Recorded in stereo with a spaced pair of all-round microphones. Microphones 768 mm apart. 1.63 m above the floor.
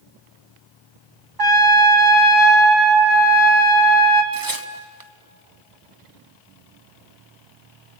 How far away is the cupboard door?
I don't hear a cupboard door.